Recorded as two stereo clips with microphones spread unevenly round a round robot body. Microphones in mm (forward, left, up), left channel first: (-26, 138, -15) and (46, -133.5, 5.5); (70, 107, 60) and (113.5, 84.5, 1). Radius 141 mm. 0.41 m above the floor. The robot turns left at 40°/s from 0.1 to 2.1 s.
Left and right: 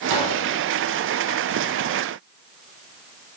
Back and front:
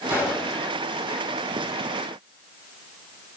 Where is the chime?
I don't hear a chime.